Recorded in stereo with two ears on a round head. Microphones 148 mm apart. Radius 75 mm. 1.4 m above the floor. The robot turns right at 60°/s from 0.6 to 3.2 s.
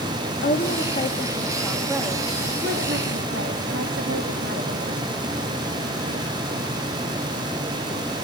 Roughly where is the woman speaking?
Behind left.